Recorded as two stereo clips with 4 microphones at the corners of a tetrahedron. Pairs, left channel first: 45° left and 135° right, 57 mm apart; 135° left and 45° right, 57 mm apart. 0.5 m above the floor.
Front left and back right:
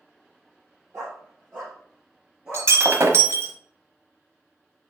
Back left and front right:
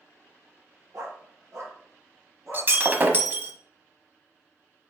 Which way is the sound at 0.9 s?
90° right.